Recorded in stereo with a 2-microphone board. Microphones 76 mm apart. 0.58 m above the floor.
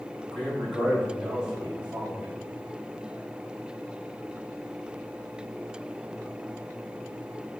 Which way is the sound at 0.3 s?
5° left (ahead or behind).